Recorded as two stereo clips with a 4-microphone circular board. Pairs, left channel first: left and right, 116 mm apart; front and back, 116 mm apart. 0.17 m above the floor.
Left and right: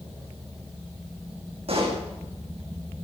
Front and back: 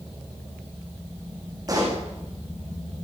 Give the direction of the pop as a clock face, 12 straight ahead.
4 o'clock.